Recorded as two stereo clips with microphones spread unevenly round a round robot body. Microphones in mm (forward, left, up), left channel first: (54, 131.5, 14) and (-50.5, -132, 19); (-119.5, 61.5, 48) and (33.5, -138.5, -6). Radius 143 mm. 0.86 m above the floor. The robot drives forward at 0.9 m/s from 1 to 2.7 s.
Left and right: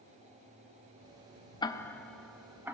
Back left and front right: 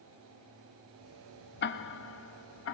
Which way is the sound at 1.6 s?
120° left.